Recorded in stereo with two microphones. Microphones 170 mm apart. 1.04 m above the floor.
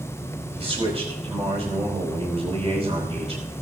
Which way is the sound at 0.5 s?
35° right (ahead or behind).